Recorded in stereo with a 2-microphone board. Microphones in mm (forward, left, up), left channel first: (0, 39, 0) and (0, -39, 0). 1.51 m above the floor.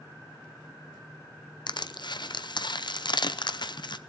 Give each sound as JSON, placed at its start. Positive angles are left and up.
{"t": 1.7, "sound": "crushing", "side_deg": 70, "distance_m": 0.6}